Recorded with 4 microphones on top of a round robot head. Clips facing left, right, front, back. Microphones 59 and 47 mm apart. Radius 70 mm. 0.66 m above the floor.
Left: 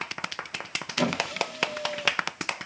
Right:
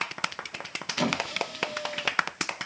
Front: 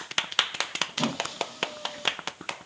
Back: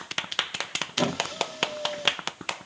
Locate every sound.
1.0 s a squeak: 175° left, 1.3 m